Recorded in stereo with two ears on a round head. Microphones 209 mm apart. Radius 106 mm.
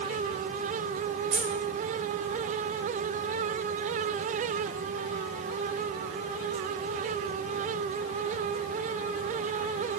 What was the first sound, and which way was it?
Keys jangling, 55° right (ahead or behind).